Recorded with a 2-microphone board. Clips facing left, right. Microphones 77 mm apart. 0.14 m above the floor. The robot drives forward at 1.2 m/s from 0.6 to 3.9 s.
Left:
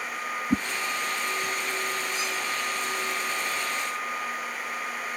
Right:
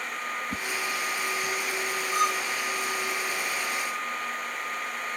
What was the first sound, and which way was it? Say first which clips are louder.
A whoosh: left 8 dB; 60° left (ahead or behind).